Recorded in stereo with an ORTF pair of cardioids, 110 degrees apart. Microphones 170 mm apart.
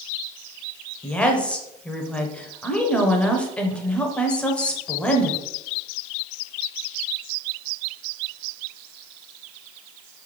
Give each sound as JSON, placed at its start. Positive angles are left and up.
{"t": 1.0, "sound": "a woman speaking", "azimuth_deg": 5, "distance_m": 0.9}